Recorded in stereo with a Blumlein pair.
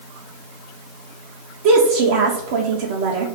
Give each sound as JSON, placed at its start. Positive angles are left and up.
{"t": 1.6, "sound": "a woman speaking", "azimuth_deg": -50, "distance_m": 0.5}